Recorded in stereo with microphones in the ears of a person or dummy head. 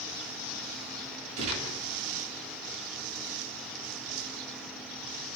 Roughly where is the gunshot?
Right.